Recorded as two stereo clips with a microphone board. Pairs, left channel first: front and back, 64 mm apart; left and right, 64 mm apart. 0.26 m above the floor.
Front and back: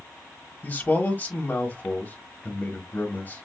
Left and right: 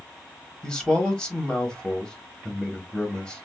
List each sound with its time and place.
0.6 s a man speaking: 25° left, 1.0 m